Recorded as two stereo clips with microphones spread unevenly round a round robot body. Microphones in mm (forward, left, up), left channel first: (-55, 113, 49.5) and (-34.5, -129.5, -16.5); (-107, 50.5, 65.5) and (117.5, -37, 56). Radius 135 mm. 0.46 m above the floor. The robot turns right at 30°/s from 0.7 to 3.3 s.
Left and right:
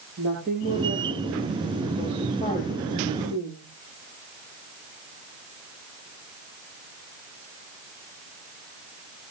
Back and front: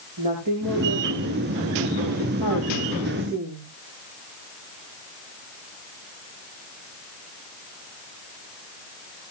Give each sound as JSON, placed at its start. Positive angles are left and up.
{"t": 0.2, "sound": "a woman speaking", "azimuth_deg": -30, "distance_m": 9.5}